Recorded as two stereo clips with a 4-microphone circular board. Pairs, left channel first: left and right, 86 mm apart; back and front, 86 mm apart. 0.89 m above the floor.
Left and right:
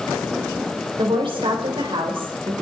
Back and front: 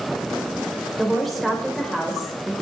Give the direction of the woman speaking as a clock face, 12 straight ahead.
3 o'clock.